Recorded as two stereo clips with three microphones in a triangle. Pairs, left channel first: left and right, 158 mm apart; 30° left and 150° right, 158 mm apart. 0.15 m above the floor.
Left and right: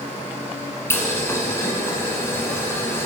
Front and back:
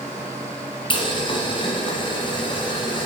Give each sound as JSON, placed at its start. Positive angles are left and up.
{"t": 0.9, "sound": "boiling", "azimuth_deg": 30, "distance_m": 1.3}